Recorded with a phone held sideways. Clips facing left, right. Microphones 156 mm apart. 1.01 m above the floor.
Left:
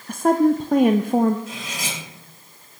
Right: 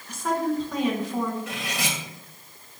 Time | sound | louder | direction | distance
0.1 | a woman speaking | left 9 dB | 55° left (ahead or behind) | 0.5 m
1.5 | cutlery clinking | right 1 dB | 85° right | 3 m